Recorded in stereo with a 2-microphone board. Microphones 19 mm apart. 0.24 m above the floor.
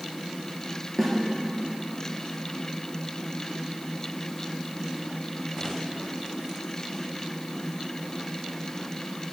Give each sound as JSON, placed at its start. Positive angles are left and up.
{"t": 1.0, "sound": "a snare drum", "side_deg": 10, "distance_m": 3.0}